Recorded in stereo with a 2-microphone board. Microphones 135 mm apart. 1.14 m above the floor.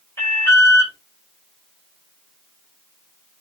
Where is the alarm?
20° left (ahead or behind), 5.5 m.